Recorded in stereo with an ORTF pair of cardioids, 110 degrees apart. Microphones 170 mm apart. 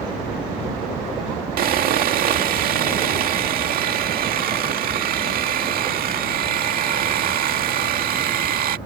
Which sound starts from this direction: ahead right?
Sawing, at 1.6 s.